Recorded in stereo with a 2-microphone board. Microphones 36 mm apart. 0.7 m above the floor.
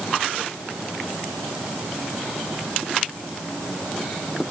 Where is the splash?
No splash in this recording.